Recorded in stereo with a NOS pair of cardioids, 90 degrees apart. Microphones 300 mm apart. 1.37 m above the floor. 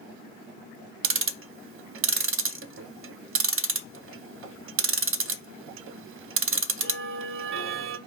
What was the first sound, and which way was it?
Ticking, 45° right.